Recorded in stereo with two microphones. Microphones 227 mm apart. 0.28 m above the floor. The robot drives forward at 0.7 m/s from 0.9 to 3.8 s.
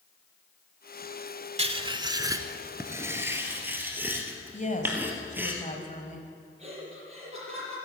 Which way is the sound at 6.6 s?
30° right (ahead or behind).